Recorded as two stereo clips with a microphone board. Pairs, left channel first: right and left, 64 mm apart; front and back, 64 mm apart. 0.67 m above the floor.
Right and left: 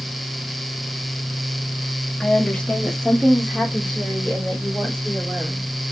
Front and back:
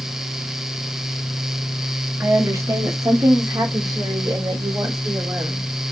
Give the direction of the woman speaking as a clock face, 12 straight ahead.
5 o'clock.